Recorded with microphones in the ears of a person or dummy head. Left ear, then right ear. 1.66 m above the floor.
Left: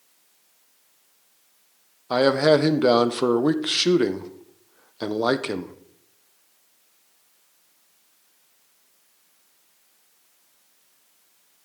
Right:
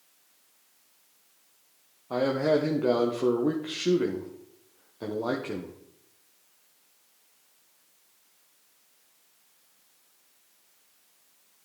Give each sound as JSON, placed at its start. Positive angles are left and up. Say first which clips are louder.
{"t": 2.1, "sound": "a man speaking", "louder": "left 7 dB", "side_deg": 75, "distance_m": 1.0}